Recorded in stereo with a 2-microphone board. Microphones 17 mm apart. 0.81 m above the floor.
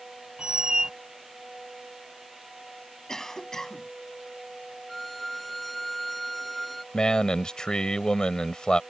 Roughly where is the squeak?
Right.